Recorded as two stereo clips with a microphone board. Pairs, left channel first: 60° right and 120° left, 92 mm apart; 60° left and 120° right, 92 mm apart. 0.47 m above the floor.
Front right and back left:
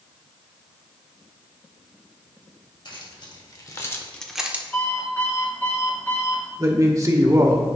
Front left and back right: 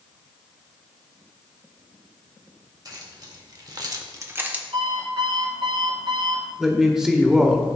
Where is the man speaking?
160° left, 1.1 m.